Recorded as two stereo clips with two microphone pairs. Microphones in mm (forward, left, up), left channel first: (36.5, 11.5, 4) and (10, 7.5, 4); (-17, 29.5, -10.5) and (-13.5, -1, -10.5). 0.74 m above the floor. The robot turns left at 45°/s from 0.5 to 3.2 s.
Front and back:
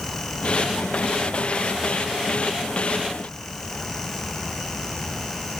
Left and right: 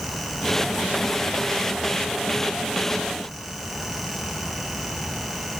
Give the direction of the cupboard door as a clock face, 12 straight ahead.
No cupboard door in this recording.